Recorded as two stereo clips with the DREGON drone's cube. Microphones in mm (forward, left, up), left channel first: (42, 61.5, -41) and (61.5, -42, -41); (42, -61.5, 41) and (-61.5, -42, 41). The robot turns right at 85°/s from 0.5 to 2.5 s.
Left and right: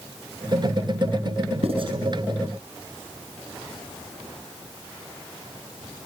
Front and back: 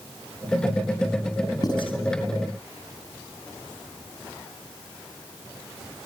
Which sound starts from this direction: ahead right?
Writing, at 1.6 s.